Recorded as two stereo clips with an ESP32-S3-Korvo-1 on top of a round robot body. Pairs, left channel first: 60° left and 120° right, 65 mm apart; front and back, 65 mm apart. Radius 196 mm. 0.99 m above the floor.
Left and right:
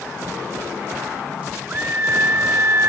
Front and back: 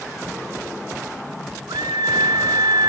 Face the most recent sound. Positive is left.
turn(degrees=-170)